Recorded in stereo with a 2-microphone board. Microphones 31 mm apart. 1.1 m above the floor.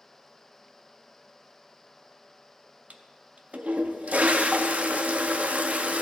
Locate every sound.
2.9 s a toilet flushing: 50° right (ahead or behind), 0.6 m